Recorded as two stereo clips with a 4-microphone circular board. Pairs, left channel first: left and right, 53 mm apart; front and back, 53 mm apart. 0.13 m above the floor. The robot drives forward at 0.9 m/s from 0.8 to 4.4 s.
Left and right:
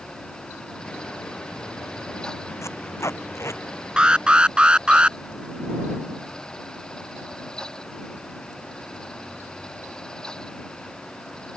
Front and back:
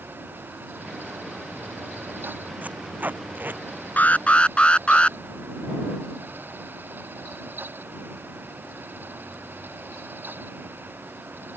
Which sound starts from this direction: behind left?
Tape being pulled, at 2.6 s.